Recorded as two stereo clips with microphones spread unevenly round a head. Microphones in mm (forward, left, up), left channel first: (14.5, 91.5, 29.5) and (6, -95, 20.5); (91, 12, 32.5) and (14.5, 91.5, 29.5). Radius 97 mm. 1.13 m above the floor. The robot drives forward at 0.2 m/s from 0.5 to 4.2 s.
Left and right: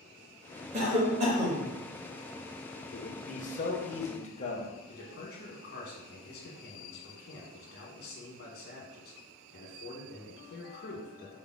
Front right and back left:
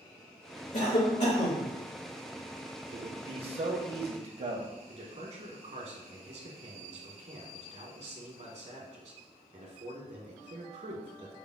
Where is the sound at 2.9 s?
125° left, 0.7 m; by 4.8 s 140° left, 0.9 m.